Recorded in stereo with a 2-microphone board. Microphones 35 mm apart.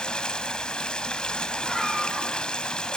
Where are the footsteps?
No footsteps in this recording.